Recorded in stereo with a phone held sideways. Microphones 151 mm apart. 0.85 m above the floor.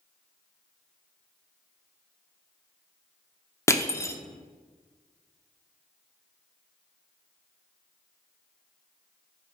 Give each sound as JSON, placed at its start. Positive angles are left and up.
{"t": 3.7, "sound": "crushing", "side_deg": 20, "distance_m": 0.7}